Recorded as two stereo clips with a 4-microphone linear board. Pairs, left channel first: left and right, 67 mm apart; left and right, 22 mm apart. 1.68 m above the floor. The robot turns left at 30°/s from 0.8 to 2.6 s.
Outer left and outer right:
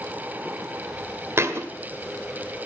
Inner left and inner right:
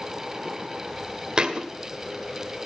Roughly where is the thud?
Right.